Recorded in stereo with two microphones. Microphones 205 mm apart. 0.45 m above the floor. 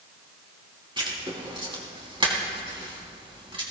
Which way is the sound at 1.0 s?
25° right (ahead or behind).